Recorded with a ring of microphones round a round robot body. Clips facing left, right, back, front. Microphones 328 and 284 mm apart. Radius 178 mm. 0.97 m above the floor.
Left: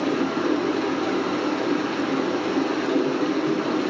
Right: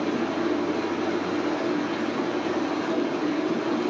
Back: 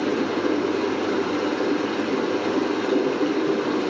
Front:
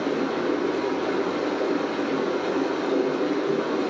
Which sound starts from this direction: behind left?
Running water, at 0.0 s.